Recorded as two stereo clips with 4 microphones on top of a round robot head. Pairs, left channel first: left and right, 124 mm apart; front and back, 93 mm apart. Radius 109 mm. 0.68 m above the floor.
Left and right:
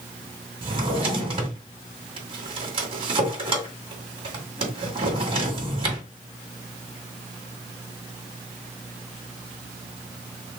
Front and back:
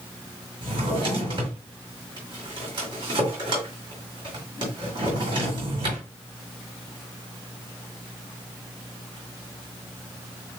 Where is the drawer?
135° right, 2.5 m.